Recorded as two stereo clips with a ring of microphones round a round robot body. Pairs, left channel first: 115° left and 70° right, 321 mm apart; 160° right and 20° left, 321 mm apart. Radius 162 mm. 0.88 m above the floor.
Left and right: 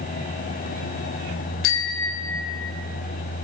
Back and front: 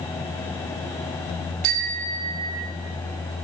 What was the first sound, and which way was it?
A bicycle bell, 60° left.